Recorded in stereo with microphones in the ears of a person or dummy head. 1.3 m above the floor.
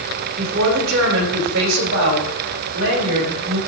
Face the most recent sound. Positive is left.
turn(degrees=-80)